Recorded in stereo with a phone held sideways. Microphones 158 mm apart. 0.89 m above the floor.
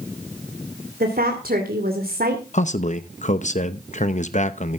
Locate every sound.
1.0 s a woman speaking: 70° right (ahead or behind), 2.5 m
2.5 s a man speaking: 50° left (ahead or behind), 0.8 m